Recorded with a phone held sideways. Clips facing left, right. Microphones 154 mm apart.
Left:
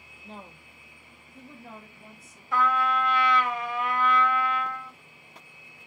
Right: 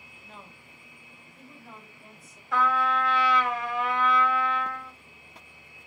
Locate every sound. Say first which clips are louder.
0.2 s a woman speaking: left 5 dB; 30° left (ahead or behind), 0.6 m; by 2.4 s 70° left (ahead or behind), 1.5 m
2.5 s a trumpet: even; centre (ahead or behind), 0.9 m